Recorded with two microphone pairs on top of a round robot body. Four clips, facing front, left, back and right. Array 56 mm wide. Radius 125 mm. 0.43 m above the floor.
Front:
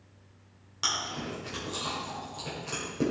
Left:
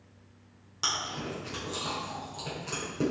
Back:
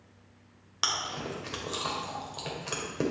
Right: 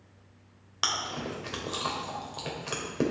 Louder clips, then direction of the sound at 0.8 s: Right 2 dB, back 1 dB; 120° right.